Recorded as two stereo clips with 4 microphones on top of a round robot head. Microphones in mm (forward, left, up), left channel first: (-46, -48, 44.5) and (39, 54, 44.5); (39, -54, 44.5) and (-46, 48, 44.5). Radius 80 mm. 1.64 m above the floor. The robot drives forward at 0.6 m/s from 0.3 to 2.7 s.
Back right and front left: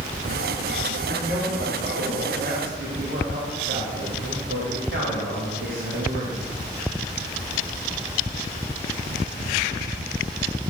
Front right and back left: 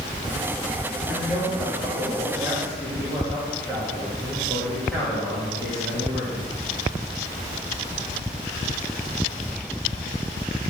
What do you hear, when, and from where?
1.1 s a man speaking: 25° left, 3.5 m; by 6.5 s 35° left, 3 m